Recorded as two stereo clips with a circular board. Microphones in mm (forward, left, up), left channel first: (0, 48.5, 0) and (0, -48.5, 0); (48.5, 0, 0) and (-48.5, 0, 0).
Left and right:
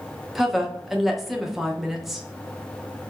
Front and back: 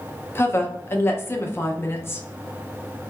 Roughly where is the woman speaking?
Ahead.